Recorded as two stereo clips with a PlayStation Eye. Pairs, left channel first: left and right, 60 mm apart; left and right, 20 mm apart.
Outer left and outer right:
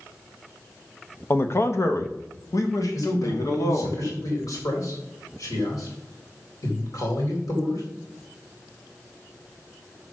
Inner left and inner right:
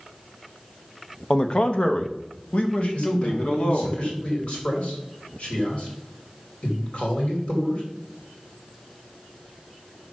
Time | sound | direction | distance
1.3 | a man speaking | 35° left (ahead or behind) | 0.7 m
2.9 | a man speaking | 70° left (ahead or behind) | 4 m